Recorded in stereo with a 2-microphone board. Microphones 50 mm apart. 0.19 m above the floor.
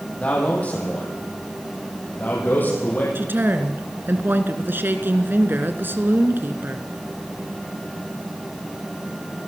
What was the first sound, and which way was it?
A man speaking, 25° left (ahead or behind).